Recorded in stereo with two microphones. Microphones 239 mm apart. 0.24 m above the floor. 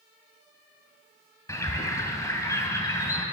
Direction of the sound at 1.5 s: 15° left (ahead or behind).